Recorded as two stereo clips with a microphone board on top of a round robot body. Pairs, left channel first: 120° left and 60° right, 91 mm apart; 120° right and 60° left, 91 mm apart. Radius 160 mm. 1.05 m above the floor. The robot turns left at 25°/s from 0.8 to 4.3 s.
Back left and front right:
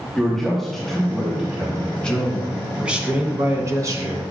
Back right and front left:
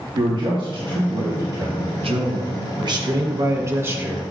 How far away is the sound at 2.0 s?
About 1.2 m.